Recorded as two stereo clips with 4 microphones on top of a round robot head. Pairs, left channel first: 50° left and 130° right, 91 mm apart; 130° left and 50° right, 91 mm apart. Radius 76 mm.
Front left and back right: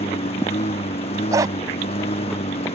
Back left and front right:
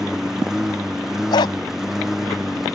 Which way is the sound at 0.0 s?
35° left.